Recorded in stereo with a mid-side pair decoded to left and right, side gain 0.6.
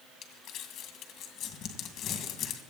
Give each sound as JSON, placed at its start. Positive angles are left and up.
{"t": 0.2, "sound": "crumpling", "azimuth_deg": 55, "distance_m": 2.0}